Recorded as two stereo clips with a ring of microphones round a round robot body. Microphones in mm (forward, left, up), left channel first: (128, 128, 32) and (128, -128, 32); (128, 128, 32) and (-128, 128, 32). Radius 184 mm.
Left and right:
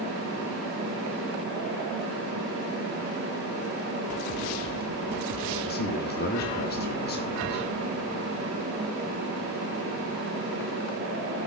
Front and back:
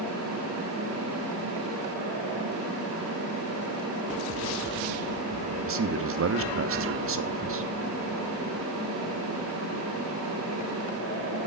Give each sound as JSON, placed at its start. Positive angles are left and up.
{"t": 5.7, "sound": "a man speaking", "azimuth_deg": 145, "distance_m": 1.4}